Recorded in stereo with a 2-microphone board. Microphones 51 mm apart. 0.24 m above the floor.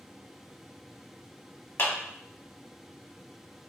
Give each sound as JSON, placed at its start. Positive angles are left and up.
{"t": 1.8, "sound": "a clap", "side_deg": 45, "distance_m": 1.1}